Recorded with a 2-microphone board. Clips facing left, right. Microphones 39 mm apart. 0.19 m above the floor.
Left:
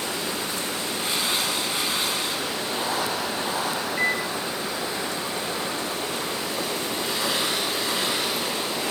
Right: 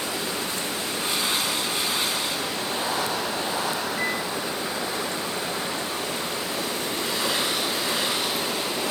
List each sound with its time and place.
4.0 s a microwave: 25° left (ahead or behind), 0.8 m